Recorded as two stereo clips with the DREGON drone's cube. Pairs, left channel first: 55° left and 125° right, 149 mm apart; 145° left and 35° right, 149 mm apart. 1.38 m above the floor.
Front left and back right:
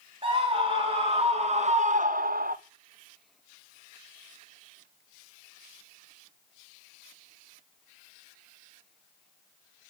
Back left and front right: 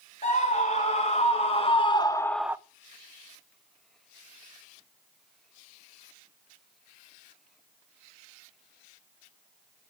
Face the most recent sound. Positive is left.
turn(degrees=-105)